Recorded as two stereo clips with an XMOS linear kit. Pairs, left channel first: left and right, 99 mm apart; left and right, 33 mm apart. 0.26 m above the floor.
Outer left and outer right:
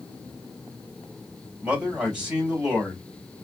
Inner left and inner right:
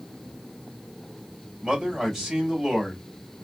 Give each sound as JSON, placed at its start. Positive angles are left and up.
{"t": 1.6, "sound": "a man speaking", "side_deg": -10, "distance_m": 1.8}